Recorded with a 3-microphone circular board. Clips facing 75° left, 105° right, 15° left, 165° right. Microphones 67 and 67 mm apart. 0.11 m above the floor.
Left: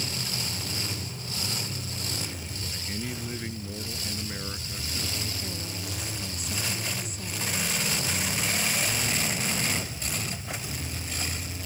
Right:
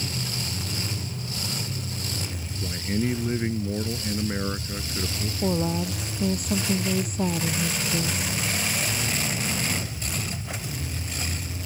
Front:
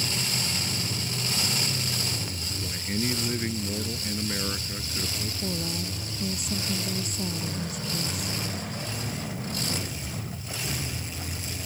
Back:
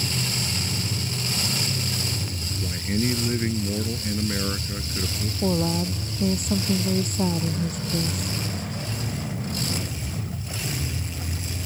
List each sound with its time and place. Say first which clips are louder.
2.6 s a man speaking: right 11 dB, back 5 dB; 100° right
5.4 s a woman speaking: right 12 dB, back 11 dB; 130° right